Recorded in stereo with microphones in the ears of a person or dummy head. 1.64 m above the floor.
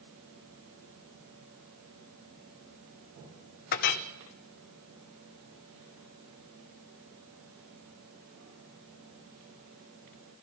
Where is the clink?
45° left (ahead or behind), 0.9 m.